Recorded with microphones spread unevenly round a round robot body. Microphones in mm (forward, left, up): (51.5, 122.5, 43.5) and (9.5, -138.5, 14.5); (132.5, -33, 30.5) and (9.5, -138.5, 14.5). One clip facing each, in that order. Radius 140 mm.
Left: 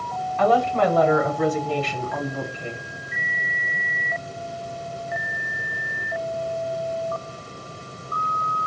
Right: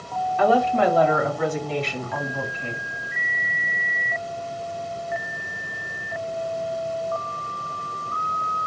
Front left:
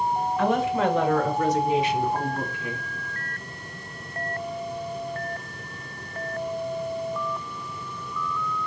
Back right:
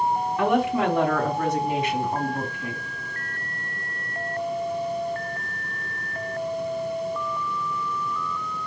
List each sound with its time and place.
0.4 s a woman speaking: straight behind, 3.5 m; by 2.8 s 155° left, 3 m